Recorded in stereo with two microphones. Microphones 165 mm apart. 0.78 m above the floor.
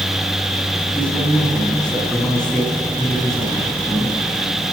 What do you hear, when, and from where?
0.9 s a man speaking: 5° left (ahead or behind), 7.5 m